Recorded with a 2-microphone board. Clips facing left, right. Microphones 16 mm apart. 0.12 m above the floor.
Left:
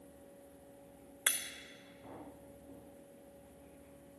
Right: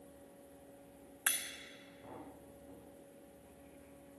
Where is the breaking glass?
60° left (ahead or behind), 1.6 m.